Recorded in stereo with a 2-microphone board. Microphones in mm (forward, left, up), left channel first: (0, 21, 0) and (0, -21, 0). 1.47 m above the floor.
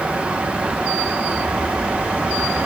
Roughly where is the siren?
I don't hear a siren.